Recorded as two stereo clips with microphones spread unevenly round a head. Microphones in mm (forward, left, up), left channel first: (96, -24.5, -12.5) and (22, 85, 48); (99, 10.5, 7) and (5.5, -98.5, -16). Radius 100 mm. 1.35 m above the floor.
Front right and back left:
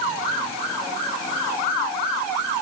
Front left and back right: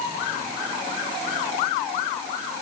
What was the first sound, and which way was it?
Only background noise.